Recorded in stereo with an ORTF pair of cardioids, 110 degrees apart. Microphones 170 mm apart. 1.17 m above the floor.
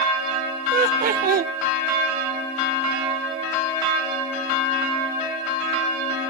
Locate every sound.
0.7 s laughter: 55° right, 0.9 m